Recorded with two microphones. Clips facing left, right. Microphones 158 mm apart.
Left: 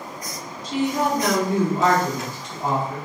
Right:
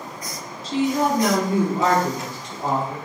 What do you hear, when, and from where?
0.6 s a woman speaking: 20° left (ahead or behind), 1.5 m; by 3.0 s 35° right (ahead or behind), 2.5 m